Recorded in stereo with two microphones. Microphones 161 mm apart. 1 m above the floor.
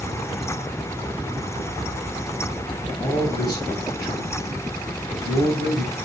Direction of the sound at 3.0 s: 20° left (ahead or behind).